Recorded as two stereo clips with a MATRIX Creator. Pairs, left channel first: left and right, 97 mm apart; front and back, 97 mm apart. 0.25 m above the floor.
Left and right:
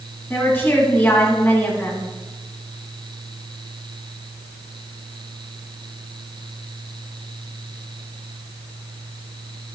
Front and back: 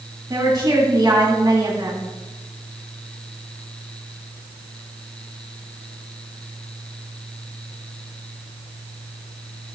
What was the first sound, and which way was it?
A woman speaking, 150° left.